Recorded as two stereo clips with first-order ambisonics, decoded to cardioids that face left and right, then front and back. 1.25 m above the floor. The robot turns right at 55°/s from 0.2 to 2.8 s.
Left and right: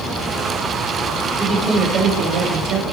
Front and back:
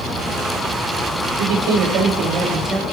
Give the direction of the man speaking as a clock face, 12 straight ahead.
6 o'clock.